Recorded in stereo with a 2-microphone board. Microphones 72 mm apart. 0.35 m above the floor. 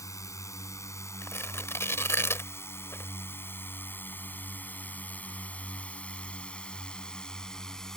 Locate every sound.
0.0 s a drone: 50° left (ahead or behind); by 8.0 s 5° left (ahead or behind)
1.2 s tearing paper: 40° left (ahead or behind)